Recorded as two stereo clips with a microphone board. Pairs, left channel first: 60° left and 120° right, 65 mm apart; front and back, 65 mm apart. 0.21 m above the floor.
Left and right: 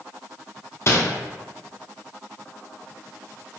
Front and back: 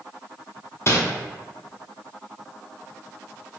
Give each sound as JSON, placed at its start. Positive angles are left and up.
{"t": 0.9, "sound": "crumpling", "azimuth_deg": 30, "distance_m": 0.6}